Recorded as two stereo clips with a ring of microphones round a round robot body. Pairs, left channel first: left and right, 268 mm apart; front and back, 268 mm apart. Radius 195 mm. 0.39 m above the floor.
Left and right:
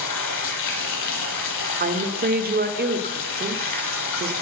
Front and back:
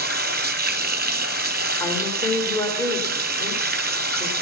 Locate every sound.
0.0 s running water: 125° left, 0.9 m
1.8 s a woman speaking: 70° right, 1.0 m